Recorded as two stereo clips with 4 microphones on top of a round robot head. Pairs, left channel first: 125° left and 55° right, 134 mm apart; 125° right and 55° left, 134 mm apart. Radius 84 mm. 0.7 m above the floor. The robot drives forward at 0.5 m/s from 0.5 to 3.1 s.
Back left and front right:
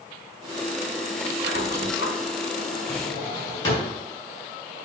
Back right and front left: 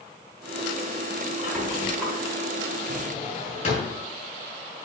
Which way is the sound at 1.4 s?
140° left.